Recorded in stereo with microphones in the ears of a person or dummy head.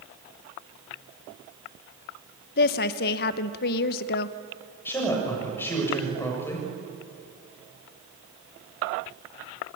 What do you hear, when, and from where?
2.6 s a woman speaking: 50° left (ahead or behind), 1.0 m
4.8 s a woman speaking: 10° left (ahead or behind), 7 m